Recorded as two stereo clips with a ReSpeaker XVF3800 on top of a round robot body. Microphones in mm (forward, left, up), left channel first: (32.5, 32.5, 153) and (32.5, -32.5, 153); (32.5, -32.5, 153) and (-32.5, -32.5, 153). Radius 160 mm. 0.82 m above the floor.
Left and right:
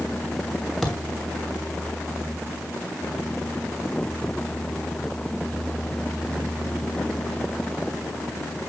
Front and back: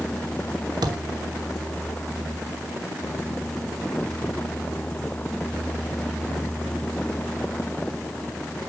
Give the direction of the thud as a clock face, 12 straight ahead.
6 o'clock.